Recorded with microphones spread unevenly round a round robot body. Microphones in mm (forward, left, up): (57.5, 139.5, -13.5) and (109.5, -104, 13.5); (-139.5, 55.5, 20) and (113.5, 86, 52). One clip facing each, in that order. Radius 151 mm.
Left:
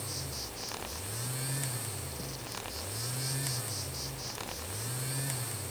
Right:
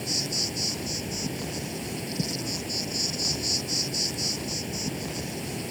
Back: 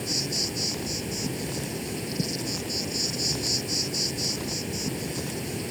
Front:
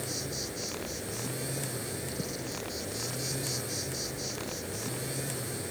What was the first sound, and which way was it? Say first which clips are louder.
An insect: right 11 dB, back 5 dB; 115° right.